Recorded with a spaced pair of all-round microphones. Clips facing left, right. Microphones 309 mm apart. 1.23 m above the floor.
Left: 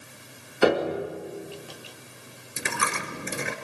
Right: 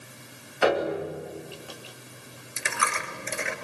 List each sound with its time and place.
0.6 s a piano: 45° left (ahead or behind), 2.5 m
2.6 s a dropped coin: 50° left (ahead or behind), 1.7 m